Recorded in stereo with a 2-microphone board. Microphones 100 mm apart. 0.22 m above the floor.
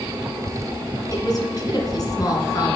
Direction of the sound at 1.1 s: 40° left (ahead or behind).